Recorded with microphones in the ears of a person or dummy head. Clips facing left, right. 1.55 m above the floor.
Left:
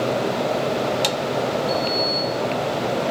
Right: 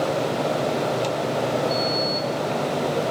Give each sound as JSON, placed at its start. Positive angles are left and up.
{"t": 1.7, "sound": "a sliding door", "side_deg": 55, "distance_m": 6.0}